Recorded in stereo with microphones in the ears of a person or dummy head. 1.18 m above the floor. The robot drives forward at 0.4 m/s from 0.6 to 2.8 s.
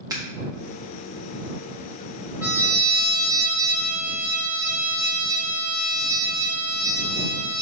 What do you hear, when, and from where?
0.1 s scissors: 15° right (ahead or behind), 1.6 m
2.4 s a trumpet: 10° right (ahead or behind), 3.5 m